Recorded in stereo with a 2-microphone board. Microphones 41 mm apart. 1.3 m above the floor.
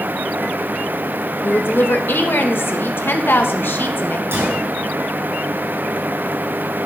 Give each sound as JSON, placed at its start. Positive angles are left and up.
{"t": 1.4, "sound": "a woman speaking", "side_deg": 60, "distance_m": 1.1}
{"t": 4.3, "sound": "a gunshot", "side_deg": -70, "distance_m": 3.0}